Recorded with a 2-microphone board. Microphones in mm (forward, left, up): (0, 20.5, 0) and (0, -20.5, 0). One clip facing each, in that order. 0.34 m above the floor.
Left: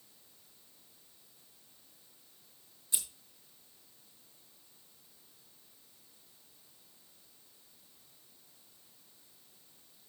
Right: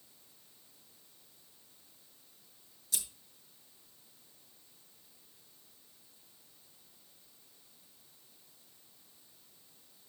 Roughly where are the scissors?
Left.